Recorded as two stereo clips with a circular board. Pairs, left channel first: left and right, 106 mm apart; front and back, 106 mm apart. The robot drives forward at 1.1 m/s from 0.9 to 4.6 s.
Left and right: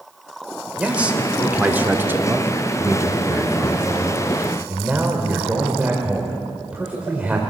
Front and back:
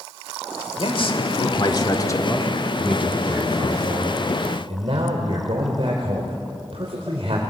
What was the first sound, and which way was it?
A man speaking, 15° right.